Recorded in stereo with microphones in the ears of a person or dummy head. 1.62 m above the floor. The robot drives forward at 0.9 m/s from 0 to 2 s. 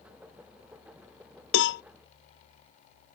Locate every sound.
1.5 s a cowbell: 65° left (ahead or behind); by 1.8 s 45° left (ahead or behind)